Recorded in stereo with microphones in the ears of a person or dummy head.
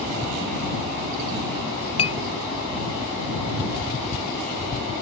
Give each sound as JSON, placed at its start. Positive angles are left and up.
{"t": 2.0, "sound": "a clink", "side_deg": 25}